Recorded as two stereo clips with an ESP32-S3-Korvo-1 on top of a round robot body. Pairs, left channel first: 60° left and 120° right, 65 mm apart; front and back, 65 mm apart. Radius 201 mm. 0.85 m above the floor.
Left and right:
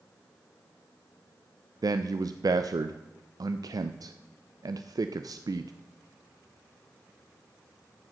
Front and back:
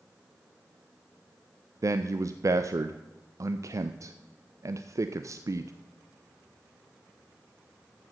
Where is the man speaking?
140° right, 0.5 m.